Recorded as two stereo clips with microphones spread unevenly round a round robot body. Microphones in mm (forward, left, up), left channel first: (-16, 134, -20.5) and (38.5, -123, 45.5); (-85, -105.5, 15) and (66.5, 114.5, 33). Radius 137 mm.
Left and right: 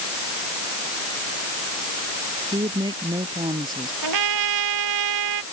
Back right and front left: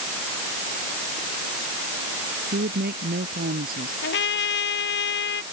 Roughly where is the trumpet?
Right.